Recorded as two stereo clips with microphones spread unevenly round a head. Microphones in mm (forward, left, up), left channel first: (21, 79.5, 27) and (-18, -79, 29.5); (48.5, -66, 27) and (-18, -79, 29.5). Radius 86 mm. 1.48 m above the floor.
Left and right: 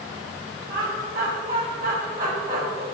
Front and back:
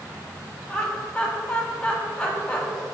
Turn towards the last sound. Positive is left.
turn(degrees=-65)